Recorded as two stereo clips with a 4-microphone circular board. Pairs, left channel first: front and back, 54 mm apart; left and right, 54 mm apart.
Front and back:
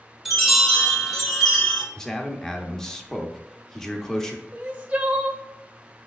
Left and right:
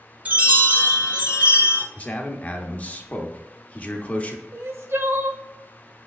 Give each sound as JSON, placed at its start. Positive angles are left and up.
{"t": 0.2, "sound": "a chime", "azimuth_deg": -90, "distance_m": 1.5}
{"t": 1.9, "sound": "a man speaking", "azimuth_deg": 70, "distance_m": 0.7}
{"t": 4.5, "sound": "crying", "azimuth_deg": -120, "distance_m": 0.7}